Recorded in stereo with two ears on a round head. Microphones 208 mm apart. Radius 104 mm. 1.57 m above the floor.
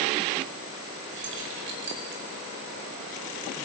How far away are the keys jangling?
About 5 m.